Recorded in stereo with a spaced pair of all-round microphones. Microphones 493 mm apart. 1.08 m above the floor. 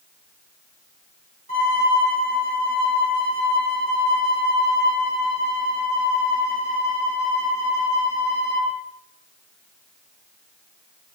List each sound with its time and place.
1.5 s a violin: 30° right (ahead or behind), 9.5 m